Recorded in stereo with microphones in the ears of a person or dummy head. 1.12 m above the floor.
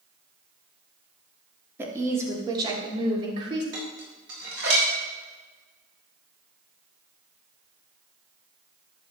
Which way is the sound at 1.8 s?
15° right (ahead or behind).